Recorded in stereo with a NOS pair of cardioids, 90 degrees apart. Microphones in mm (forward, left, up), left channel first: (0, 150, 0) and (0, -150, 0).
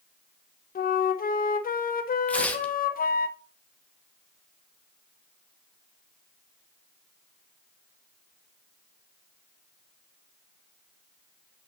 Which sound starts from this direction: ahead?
Tearing paper, at 2.3 s.